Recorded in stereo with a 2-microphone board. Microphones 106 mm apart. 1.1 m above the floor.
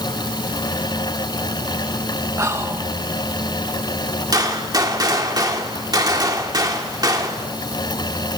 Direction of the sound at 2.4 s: 25° right (ahead or behind).